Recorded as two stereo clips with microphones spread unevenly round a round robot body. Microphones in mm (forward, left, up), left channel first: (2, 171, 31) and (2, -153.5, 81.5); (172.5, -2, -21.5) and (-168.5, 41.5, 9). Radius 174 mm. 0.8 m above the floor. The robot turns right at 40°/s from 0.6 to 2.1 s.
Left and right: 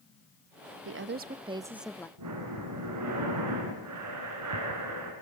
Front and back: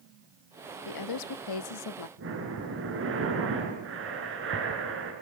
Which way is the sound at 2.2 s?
130° right.